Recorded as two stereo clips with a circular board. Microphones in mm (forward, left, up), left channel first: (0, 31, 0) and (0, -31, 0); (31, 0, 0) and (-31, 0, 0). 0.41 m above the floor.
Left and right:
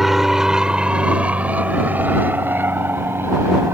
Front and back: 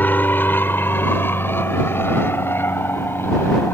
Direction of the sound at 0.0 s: 10° right.